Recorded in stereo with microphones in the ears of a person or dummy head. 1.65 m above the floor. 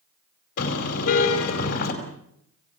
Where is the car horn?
65° left (ahead or behind), 5 m.